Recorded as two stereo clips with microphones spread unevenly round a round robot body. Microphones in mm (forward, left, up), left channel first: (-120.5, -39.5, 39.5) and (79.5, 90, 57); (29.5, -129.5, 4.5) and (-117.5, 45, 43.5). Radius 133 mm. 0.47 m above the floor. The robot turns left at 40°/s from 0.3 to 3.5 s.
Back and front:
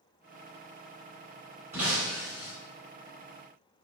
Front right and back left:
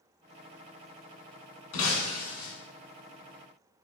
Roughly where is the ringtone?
I don't hear a ringtone.